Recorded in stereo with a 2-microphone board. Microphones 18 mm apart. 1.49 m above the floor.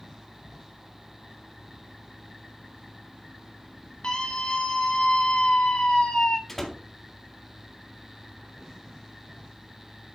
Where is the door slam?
15° left (ahead or behind), 1.8 m.